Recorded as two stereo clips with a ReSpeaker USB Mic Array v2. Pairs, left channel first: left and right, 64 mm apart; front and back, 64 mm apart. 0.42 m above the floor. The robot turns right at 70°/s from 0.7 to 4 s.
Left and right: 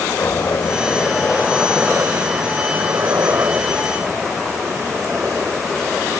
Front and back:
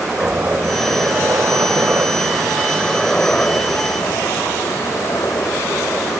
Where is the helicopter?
120° left; by 6.2 s 20° right.